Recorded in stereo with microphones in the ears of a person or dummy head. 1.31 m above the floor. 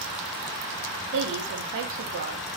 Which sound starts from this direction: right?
A woman speaking, at 1.1 s.